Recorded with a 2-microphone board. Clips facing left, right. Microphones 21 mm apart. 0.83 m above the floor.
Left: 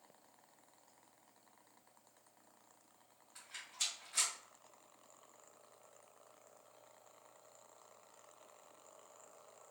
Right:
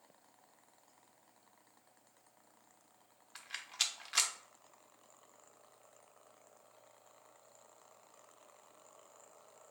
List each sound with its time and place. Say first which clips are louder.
3.4 s a rattle: right 5 dB; 70° right (ahead or behind), 0.6 m